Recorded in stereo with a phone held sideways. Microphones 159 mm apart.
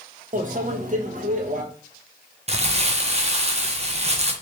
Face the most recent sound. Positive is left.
turn(degrees=-40)  # may be behind; listen again after turning